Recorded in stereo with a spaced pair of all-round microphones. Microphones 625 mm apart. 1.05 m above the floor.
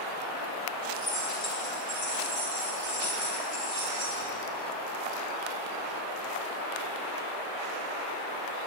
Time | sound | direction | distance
0.9 | keys jangling | 90° left | 5.5 m